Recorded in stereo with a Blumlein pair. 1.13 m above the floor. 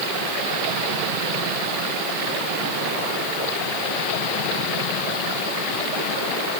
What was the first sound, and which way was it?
Only background noise.